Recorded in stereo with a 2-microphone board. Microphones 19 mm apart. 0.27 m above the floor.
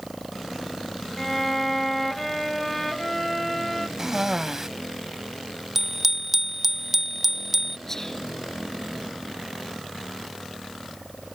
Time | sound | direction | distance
1.2 | a violin | 10° left (ahead or behind) | ?
4.0 | a cough | 20° right (ahead or behind) | ?
5.8 | a bicycle bell | 15° right (ahead or behind) | ?
7.9 | whispering | 20° left (ahead or behind) | ?